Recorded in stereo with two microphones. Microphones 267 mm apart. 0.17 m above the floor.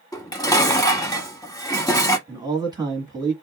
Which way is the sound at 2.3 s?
15° right (ahead or behind).